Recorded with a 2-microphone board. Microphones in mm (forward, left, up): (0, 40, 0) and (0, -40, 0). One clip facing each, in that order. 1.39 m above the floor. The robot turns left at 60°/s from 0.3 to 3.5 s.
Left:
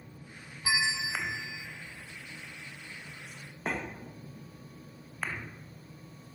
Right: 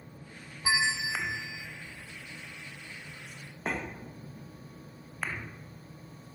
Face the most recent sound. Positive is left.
turn(degrees=160)